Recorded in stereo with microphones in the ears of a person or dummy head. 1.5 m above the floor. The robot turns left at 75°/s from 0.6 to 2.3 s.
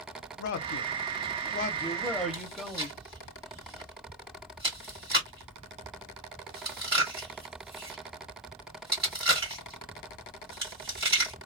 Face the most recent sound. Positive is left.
turn(degrees=-20)  # may be behind; listen again after turning